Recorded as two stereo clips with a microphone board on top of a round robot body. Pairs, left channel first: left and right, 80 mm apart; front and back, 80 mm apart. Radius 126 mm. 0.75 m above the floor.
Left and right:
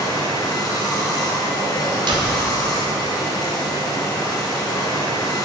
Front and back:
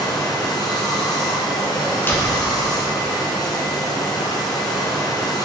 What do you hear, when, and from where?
0.0 s running water: 45° left, 1.4 m
2.1 s a door slam: 65° right, 1.3 m